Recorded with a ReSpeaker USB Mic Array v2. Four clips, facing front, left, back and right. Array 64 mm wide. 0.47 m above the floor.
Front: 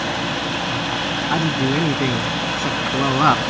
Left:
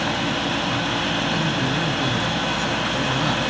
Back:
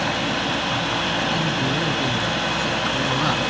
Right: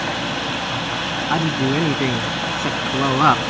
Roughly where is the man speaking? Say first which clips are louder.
Right 3 dB, front 3 dB; ahead right.